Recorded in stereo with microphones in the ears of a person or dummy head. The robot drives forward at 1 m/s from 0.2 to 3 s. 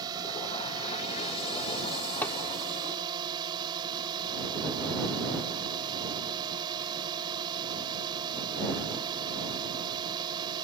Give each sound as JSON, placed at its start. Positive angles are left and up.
{"t": 0.0, "sound": "a drone", "side_deg": -20}
{"t": 2.2, "sound": "hammering", "side_deg": 10}